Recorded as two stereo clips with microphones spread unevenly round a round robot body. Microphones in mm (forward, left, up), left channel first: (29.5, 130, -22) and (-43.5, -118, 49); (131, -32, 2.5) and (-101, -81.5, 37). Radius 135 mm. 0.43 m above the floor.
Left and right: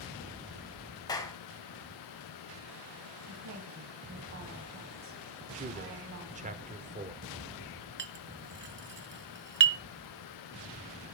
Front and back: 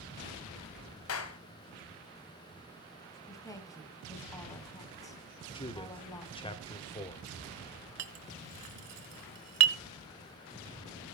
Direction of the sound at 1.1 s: 5° left.